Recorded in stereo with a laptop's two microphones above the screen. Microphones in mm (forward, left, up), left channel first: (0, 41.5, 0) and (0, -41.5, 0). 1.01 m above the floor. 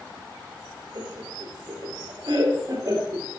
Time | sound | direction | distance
0.9 | laughter | 85° right | 2.5 m